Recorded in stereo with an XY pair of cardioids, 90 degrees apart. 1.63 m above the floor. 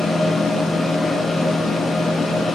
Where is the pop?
I don't hear a pop.